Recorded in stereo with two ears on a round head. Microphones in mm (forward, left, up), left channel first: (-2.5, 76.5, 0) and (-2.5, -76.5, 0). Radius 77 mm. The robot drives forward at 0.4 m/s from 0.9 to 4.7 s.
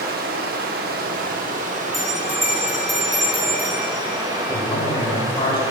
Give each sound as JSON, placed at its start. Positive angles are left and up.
{"t": 0.0, "sound": "running water", "side_deg": -60, "distance_m": 0.9}
{"t": 1.9, "sound": "a bell", "side_deg": 0, "distance_m": 1.4}
{"t": 4.5, "sound": "a man speaking", "side_deg": 35, "distance_m": 2.5}